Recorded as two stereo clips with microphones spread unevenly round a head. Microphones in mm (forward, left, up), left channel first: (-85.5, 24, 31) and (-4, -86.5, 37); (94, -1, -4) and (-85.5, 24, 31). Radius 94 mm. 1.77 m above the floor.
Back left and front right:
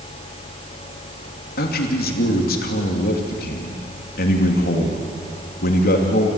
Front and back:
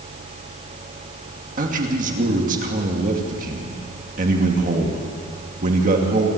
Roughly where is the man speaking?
Behind left.